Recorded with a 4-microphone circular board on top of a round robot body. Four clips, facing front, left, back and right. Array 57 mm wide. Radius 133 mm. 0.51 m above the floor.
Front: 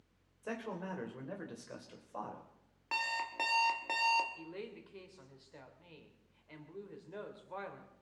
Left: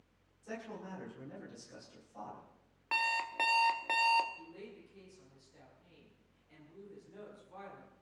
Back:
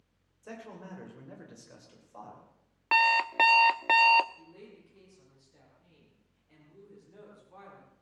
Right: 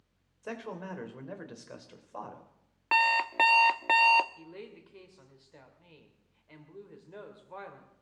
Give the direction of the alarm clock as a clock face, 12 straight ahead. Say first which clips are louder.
Right 8 dB, back 13 dB; 5 o'clock.